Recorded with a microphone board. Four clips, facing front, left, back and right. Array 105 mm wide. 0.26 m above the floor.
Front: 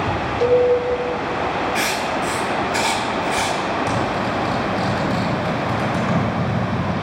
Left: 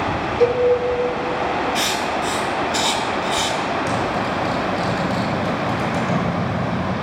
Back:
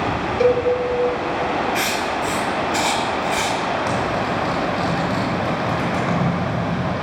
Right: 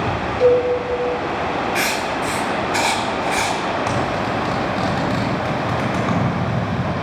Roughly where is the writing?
Right.